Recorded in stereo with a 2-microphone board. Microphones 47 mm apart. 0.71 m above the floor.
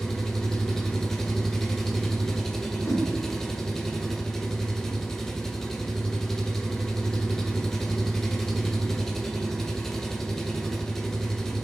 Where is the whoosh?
50° left (ahead or behind), 2 m.